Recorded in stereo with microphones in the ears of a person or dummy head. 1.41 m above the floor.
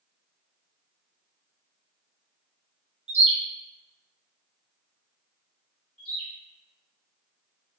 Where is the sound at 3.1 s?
35° right (ahead or behind), 0.5 m.